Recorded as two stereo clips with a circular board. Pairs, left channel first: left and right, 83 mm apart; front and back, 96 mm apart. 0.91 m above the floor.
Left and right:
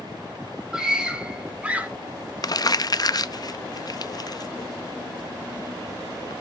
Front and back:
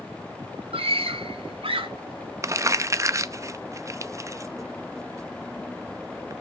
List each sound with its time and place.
0.7 s a scream: 170° right, 3 m; by 1.9 s 160° right, 2.5 m
2.4 s crumpling: 125° left, 0.6 m